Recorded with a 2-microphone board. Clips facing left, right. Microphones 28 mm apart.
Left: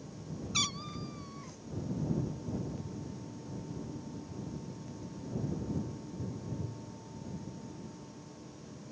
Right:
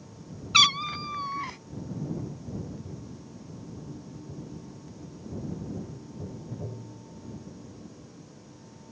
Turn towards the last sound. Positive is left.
turn(degrees=-60)  # may be behind; listen again after turning